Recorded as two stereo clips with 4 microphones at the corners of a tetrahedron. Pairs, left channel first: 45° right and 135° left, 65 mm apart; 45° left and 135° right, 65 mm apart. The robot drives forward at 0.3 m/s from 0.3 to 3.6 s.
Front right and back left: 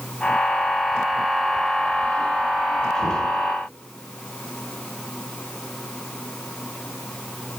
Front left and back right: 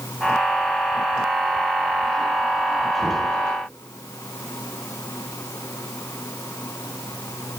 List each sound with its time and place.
3.0 s knocking: 45° right, 7 m